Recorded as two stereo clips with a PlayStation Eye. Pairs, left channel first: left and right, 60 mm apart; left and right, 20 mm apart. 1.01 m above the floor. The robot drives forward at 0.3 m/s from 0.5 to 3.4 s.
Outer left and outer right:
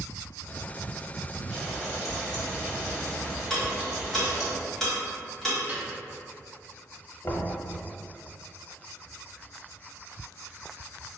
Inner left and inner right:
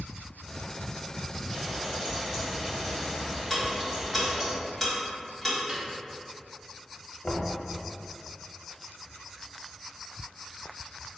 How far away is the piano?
About 1.3 m.